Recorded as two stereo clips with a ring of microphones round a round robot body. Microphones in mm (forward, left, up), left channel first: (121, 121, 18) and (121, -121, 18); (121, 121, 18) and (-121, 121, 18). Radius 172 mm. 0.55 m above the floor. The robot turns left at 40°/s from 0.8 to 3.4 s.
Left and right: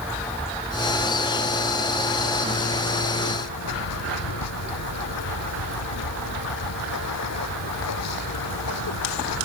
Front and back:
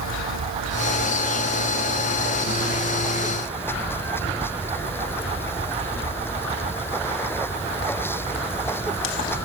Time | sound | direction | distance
0.0 | running water | 175° right | ?